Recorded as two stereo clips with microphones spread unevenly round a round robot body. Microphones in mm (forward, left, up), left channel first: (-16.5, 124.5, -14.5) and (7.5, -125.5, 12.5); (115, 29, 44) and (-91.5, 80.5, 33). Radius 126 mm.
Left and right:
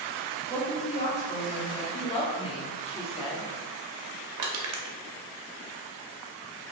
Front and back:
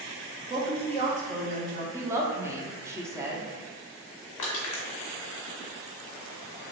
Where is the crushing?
55° right, 0.6 m.